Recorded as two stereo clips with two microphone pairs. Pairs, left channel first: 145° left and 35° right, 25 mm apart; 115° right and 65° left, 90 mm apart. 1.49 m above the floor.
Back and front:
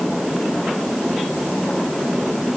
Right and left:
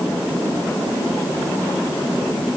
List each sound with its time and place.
Only background noise.